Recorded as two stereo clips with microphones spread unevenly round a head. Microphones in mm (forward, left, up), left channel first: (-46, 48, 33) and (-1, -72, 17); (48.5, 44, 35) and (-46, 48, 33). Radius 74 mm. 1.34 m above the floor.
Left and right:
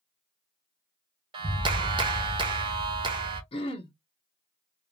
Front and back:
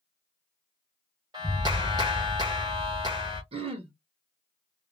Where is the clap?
120° right, 0.7 m.